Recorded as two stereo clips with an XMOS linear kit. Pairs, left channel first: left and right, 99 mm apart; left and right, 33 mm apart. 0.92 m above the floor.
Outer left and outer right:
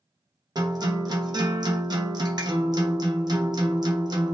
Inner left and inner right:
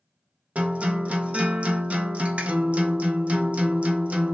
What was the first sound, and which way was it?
A guitar, 45° right (ahead or behind).